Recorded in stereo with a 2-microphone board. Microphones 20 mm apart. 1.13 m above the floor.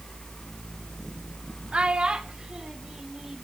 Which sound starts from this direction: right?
A child speaking, at 1.7 s.